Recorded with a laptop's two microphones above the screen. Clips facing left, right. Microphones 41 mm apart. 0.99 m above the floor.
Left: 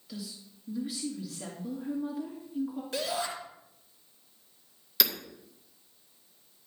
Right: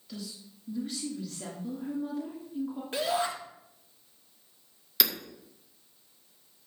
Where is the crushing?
No crushing in this recording.